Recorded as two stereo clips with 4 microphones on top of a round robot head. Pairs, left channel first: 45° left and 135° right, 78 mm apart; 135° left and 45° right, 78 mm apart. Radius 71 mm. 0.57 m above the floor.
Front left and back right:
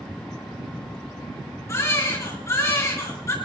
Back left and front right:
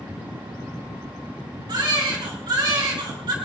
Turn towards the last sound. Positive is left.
turn(degrees=-10)